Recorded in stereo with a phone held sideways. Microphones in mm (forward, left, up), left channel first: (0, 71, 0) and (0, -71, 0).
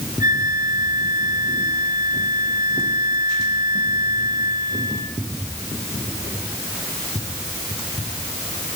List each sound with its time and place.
0.2 s a flute: 30° right (ahead or behind), 1.8 m